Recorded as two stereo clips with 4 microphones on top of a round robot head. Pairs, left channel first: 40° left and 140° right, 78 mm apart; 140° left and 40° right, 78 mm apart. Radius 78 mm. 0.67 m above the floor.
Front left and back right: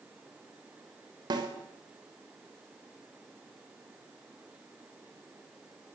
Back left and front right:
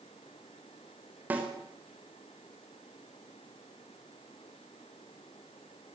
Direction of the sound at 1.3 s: 110° right.